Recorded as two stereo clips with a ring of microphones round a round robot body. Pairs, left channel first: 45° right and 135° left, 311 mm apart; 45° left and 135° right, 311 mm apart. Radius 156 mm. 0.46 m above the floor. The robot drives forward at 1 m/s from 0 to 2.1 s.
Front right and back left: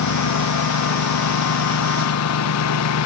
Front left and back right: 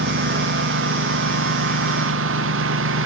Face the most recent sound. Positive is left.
turn(degrees=-85)